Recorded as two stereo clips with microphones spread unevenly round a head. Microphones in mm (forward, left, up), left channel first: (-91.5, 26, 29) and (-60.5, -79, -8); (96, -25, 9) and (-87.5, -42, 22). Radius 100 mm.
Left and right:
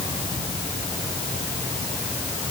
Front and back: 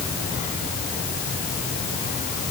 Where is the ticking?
I don't hear ticking.